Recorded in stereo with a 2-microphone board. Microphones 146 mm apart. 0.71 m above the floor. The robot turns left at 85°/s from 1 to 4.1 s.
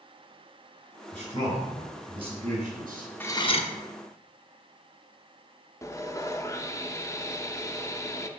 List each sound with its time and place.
1.1 s a man speaking: 55° left, 3.5 m; by 3.1 s 115° right, 3.5 m
3.2 s cutlery clinking: 165° left, 0.7 m; by 3.7 s 125° left, 0.7 m
5.8 s sawing: 20° left (ahead or behind), 0.6 m